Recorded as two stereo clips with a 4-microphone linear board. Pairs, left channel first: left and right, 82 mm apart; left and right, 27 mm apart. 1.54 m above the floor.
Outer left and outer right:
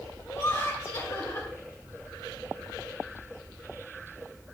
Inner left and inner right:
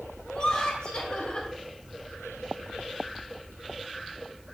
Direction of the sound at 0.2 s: 35° left (ahead or behind).